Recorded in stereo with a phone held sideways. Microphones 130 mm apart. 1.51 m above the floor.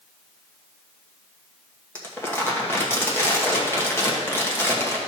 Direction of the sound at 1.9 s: 20° left (ahead or behind).